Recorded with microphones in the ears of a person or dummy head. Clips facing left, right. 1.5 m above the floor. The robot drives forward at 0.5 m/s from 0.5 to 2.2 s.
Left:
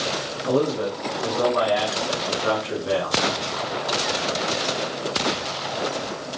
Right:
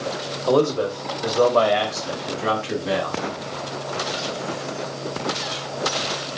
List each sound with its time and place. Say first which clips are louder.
0.5 s a man speaking: right 3 dB; 60° right (ahead or behind), 1.1 m; by 3.2 s 35° right (ahead or behind), 1.7 m